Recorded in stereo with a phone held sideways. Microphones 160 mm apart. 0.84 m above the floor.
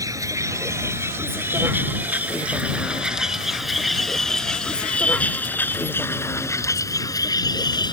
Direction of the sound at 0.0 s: 20° right (ahead or behind).